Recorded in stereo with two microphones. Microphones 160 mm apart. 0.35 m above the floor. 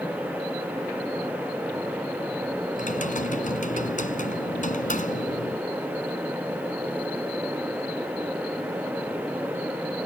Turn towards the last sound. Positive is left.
turn(degrees=55)  # may be behind; listen again after turning